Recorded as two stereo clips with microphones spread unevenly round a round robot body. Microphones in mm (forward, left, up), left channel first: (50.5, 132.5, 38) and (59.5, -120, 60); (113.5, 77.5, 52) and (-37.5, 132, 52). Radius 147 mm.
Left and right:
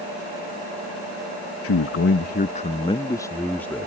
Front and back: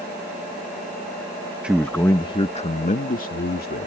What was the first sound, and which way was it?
A man speaking, 75° left.